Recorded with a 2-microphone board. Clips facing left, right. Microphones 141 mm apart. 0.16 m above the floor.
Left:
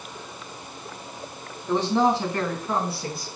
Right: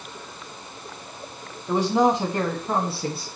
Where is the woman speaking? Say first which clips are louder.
Right 1 dB; 10° right (ahead or behind), 1.0 m; by 3.3 s 30° right (ahead or behind), 1.2 m.